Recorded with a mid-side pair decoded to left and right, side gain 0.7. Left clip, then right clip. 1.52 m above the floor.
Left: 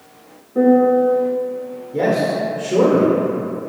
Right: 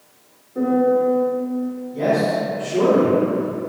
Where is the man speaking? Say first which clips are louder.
Left 1 dB; 70° left, 0.8 m.